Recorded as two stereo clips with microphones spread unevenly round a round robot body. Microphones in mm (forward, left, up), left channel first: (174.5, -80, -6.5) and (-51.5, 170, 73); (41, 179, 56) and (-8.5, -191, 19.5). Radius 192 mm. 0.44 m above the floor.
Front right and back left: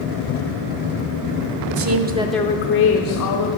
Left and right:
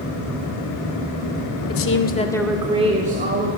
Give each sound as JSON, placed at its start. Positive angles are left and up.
{"t": 1.7, "sound": "a woman speaking", "azimuth_deg": 125, "distance_m": 1.0}